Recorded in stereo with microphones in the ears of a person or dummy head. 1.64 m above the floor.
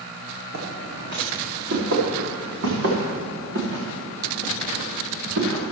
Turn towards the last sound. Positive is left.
turn(degrees=-70)  # may be behind; listen again after turning